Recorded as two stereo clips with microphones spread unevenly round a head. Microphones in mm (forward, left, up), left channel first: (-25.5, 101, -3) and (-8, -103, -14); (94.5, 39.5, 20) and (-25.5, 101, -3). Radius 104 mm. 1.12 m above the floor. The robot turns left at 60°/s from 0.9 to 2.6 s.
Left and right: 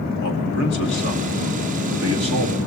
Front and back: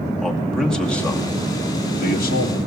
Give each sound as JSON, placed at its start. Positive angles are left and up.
{"t": 0.2, "sound": "a man speaking", "azimuth_deg": 60, "distance_m": 2.5}